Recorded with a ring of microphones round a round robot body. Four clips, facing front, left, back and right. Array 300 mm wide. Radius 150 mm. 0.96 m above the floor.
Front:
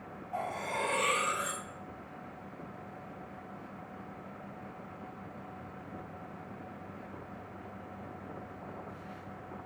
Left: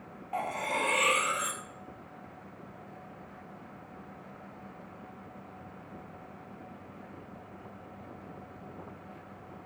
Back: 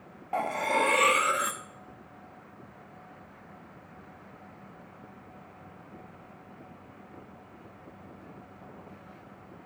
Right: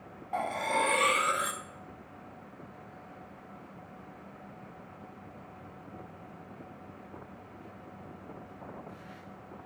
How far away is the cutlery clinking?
About 0.9 m.